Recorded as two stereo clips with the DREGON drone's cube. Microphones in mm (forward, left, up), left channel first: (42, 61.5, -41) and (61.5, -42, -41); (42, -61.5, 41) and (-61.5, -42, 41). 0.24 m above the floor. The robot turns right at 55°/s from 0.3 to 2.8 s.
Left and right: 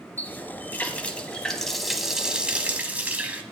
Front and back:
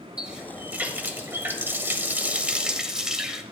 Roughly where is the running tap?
Left.